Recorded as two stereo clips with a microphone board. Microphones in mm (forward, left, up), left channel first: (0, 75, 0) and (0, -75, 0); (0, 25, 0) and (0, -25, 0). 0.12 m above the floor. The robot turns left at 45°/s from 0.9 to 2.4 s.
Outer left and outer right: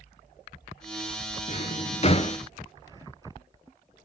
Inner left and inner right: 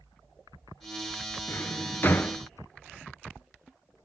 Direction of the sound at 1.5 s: 50° left (ahead or behind).